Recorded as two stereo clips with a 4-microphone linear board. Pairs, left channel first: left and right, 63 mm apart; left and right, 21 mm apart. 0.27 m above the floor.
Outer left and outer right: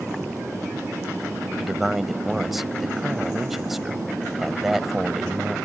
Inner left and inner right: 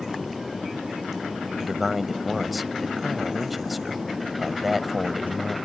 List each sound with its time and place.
1.6 s a man speaking: 5° right (ahead or behind)